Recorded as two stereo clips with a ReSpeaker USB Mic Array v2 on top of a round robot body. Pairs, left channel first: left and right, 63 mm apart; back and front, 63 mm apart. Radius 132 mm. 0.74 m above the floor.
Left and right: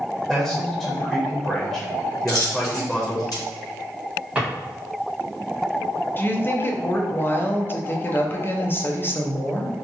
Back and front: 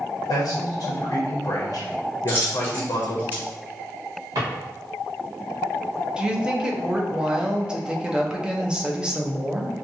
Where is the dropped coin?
60° left, 1.3 m.